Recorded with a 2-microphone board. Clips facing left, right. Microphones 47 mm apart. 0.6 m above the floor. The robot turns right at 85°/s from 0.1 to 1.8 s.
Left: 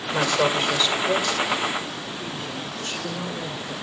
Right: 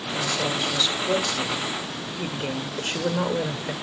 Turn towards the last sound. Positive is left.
turn(degrees=-110)